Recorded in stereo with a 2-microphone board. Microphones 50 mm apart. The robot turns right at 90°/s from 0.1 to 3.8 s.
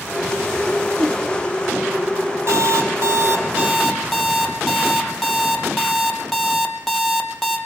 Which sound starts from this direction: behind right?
An alarm clock, at 2.5 s.